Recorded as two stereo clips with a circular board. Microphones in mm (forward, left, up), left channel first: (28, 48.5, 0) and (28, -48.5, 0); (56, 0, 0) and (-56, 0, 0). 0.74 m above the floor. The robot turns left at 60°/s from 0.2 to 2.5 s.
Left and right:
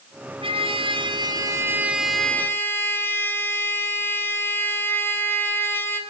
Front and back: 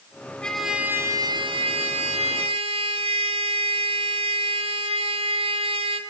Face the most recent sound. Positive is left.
turn(degrees=155)